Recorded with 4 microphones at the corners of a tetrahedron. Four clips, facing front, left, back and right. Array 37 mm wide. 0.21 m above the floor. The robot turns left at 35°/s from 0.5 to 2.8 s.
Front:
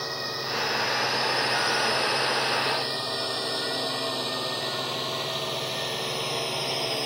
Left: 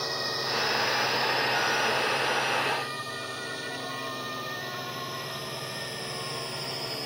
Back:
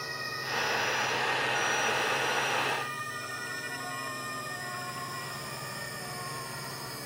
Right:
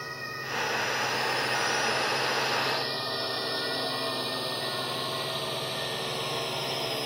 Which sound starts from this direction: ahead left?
A drone, at 0.0 s.